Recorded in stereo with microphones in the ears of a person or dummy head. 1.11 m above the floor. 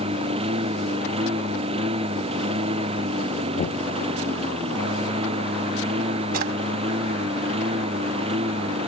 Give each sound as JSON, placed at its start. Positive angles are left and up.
{"t": 0.0, "sound": "a lawn mower", "side_deg": -35}
{"t": 3.6, "sound": "knocking", "side_deg": 40}
{"t": 6.3, "sound": "a drawer", "side_deg": -60}